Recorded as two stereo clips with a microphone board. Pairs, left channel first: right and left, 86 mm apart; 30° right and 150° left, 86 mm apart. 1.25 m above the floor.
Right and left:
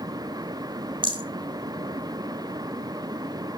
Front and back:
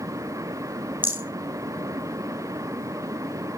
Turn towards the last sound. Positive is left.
turn(degrees=85)